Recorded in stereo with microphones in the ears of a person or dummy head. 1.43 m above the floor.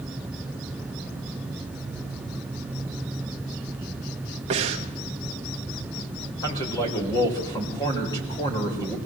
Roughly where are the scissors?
No scissors in this recording.